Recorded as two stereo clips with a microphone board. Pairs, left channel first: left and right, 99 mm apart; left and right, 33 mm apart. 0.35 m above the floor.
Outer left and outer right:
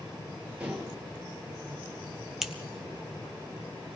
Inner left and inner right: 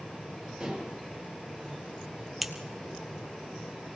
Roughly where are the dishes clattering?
Centre.